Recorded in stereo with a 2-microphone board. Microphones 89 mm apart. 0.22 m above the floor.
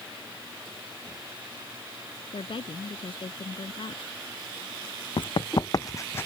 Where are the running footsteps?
60° left (ahead or behind); by 6.3 s 25° left (ahead or behind).